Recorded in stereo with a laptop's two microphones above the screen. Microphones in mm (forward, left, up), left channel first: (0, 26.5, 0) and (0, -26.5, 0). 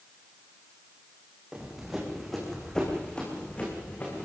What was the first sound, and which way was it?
Running footsteps, 15° right (ahead or behind).